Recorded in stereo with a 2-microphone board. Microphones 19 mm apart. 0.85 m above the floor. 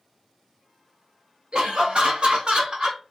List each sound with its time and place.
1.5 s laughter: 50° right (ahead or behind), 1.1 m